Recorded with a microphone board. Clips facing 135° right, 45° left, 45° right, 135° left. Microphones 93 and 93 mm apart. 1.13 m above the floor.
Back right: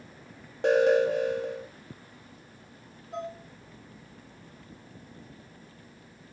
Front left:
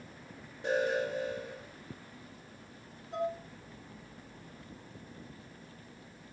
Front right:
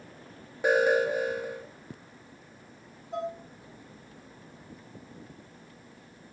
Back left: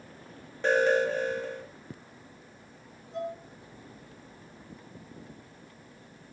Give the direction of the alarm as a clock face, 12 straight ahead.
4 o'clock.